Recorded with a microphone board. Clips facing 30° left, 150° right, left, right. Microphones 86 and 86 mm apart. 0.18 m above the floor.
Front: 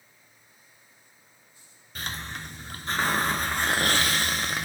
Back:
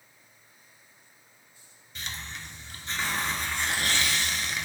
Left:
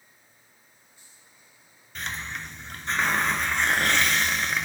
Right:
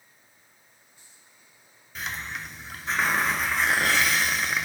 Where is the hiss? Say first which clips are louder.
Front 4 dB, even; 5° right, 0.8 m.